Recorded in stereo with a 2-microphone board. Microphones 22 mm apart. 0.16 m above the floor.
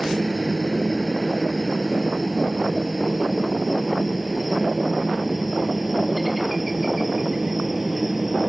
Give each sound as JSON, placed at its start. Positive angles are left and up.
{"t": 0.0, "sound": "a helicopter", "side_deg": -5}